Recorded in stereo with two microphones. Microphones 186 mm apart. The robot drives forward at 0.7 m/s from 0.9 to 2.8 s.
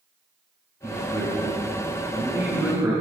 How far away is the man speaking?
About 10 m.